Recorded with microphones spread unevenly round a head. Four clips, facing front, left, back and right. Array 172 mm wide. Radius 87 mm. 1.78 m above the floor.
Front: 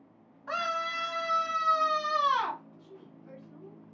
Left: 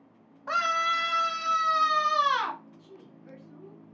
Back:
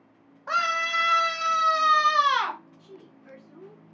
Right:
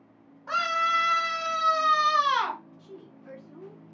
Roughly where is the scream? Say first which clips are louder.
Right 1 dB, back 6 dB; behind left.